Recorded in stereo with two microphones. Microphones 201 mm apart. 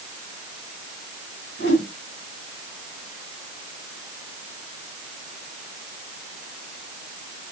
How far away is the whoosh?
About 5 m.